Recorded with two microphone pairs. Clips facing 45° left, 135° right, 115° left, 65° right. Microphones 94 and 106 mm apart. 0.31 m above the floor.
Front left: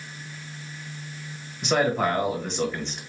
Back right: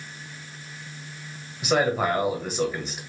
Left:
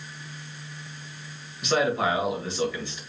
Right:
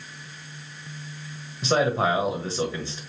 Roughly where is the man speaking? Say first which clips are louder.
Even, right 2 dB; ahead right.